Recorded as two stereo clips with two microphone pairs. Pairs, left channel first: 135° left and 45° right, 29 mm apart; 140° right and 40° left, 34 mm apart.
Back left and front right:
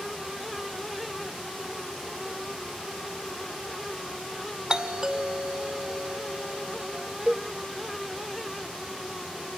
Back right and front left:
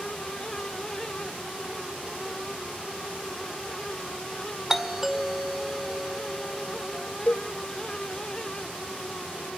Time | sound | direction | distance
4.7 | a doorbell | 25° right | 1.9 m
7.3 | a cowbell | 105° right | 0.6 m